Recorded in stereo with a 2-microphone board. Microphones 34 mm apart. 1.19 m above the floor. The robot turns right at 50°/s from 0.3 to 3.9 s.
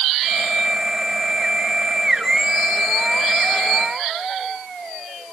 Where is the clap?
I don't hear a clap.